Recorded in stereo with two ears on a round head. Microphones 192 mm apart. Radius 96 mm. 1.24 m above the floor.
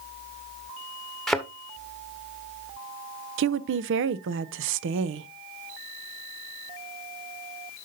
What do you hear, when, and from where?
1.3 s a thud: centre (ahead or behind), 1.2 m
3.4 s a woman speaking: 60° right (ahead or behind), 0.6 m